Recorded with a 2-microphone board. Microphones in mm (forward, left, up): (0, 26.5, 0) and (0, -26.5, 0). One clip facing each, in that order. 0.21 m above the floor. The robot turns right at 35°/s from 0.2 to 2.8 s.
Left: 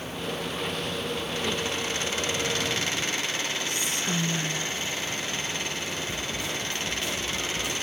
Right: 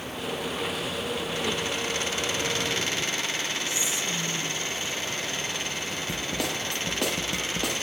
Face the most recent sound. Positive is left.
turn(degrees=-80)